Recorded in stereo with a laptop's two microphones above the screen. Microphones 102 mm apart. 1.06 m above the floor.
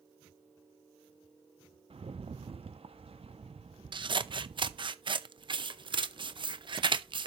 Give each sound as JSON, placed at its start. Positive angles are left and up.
{"t": 1.9, "sound": "a rattle", "side_deg": -65, "distance_m": 0.9}
{"t": 3.9, "sound": "scissors", "side_deg": -50, "distance_m": 0.6}